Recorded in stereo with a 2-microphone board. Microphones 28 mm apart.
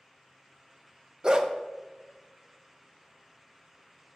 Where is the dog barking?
30° right (ahead or behind), 0.6 m.